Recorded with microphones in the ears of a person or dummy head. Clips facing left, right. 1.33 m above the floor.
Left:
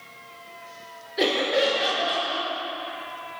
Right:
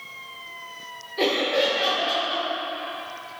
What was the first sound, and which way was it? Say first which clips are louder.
Laughter: even; 15° left (ahead or behind).